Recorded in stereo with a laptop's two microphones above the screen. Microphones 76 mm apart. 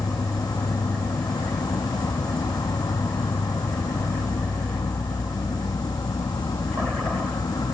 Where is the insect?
60° left (ahead or behind).